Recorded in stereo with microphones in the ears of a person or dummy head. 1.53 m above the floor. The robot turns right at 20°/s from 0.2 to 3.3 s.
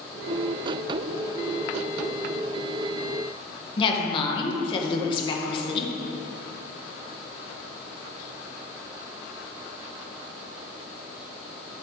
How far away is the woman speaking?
About 1.4 m.